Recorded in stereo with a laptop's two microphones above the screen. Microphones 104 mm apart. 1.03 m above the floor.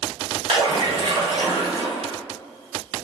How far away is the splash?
About 1.3 m.